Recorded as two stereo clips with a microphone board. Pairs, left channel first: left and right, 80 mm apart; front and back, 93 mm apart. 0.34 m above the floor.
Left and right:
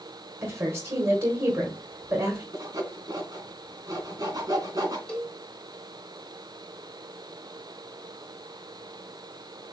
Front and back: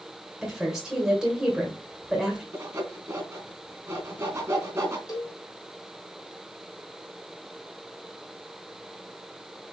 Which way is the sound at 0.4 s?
105° right.